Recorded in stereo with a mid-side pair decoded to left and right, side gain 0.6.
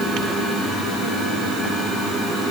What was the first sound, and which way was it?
Only background noise.